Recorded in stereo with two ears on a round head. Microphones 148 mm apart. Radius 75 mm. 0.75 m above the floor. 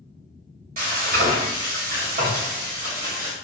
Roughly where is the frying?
Right.